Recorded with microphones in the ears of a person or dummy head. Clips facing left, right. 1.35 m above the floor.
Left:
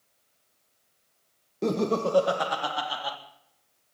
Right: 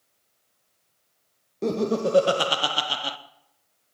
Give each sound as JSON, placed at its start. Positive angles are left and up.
{"t": 1.6, "sound": "laughter", "side_deg": 0, "distance_m": 1.1}